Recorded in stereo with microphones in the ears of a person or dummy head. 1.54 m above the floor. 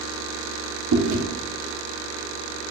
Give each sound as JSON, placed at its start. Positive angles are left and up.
{"t": 0.9, "sound": "chewing", "side_deg": -65, "distance_m": 1.0}